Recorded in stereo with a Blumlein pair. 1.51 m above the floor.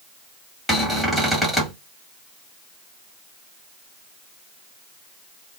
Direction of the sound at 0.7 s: Straight ahead.